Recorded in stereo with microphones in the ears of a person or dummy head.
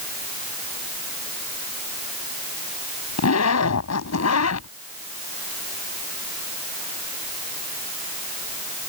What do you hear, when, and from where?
3.2 s a zipper: 85° left